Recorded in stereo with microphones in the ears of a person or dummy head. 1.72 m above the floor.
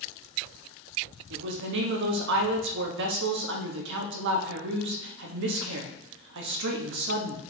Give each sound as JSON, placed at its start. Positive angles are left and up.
{"t": 1.3, "sound": "a woman speaking", "side_deg": -65, "distance_m": 1.2}